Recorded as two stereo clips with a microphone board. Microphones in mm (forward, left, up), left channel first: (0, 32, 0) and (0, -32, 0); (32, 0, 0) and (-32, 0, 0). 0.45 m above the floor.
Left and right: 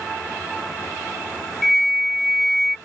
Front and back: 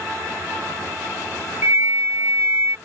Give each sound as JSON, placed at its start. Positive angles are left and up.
{"t": 1.6, "sound": "a flute", "azimuth_deg": 180}